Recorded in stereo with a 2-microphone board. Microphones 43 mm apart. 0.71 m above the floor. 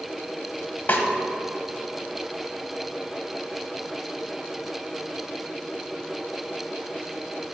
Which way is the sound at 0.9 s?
45° left (ahead or behind).